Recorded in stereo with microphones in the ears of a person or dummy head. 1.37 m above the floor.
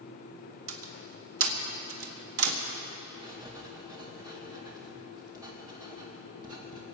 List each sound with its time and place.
0.7 s a door slam: 80° right, 1.6 m
3.2 s writing: 20° right (ahead or behind), 1.8 m